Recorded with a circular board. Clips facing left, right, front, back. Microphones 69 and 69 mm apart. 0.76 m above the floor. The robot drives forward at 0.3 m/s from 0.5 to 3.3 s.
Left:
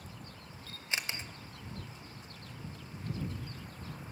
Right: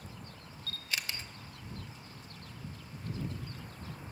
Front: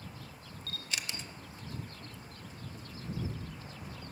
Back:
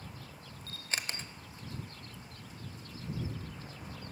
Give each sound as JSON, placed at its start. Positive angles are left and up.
{"t": 0.7, "sound": "a camera shutter", "azimuth_deg": 140, "distance_m": 0.5}